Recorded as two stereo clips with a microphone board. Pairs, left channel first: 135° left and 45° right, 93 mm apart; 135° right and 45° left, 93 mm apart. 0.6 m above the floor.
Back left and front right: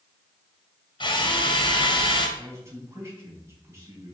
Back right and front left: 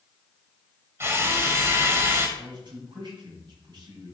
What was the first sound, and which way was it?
A drill, 105° left.